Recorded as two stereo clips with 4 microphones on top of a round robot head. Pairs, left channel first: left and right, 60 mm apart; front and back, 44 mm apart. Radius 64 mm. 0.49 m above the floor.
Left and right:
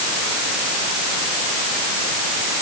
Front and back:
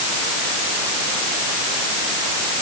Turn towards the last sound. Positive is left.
No sound to turn to.